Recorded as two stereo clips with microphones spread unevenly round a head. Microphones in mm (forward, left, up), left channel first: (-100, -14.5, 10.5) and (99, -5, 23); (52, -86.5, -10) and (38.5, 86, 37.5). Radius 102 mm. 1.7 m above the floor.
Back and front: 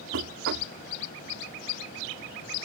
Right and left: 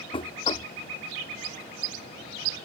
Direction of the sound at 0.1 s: 20° right.